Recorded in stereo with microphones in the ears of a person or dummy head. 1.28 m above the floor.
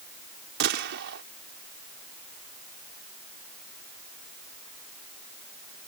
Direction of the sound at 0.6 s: 60° right (ahead or behind).